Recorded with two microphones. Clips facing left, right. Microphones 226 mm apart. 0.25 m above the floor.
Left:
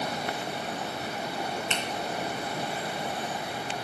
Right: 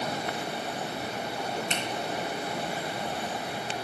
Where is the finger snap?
40° right (ahead or behind), 2 m.